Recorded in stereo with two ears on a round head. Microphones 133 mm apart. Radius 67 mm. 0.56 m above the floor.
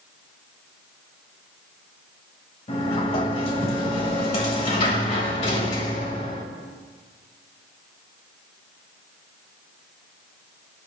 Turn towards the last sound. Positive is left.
turn(degrees=40)  # may be behind; listen again after turning